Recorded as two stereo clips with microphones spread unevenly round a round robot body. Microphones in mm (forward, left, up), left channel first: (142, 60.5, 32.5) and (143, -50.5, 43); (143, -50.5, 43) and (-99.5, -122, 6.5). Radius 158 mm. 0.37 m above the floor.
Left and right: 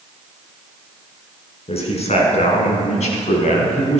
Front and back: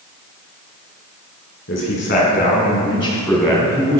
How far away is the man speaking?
About 4 m.